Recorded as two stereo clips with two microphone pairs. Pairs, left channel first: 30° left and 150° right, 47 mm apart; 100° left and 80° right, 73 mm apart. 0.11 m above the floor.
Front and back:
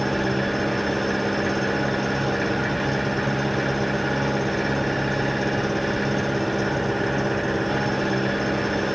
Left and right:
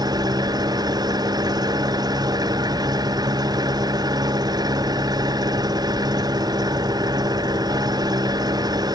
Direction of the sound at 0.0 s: 60° right.